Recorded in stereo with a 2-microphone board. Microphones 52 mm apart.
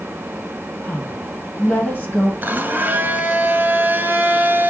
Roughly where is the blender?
Right.